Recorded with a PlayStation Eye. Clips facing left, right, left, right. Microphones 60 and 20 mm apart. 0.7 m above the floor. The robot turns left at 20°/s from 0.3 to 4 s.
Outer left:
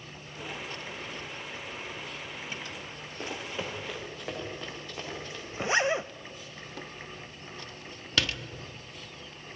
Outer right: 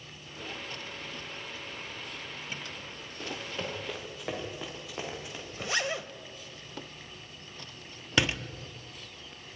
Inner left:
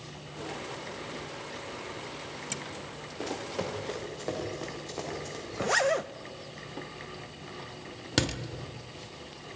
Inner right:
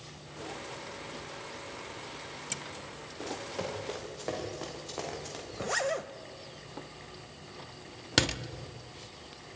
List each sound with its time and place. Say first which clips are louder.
3.2 s running footsteps: outer left 1 dB, inner left 3 dB; 20° left (ahead or behind), 3.5 m; by 5.4 s 15° right (ahead or behind), 6.5 m
5.5 s a zipper: outer left 6 dB, inner left 5 dB; 25° left (ahead or behind), 0.5 m
8.2 s a door slam: outer right 3 dB, inner right 2 dB; 15° right (ahead or behind), 0.9 m